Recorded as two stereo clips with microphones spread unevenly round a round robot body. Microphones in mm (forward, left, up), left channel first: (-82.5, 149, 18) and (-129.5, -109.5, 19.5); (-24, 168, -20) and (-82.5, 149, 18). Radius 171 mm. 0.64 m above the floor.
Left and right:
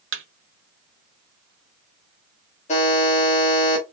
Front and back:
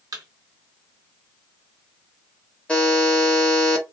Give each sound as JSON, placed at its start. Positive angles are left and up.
{"t": 0.1, "sound": "a thud", "azimuth_deg": -145, "distance_m": 0.8}
{"t": 2.7, "sound": "a buzzer", "azimuth_deg": 25, "distance_m": 1.3}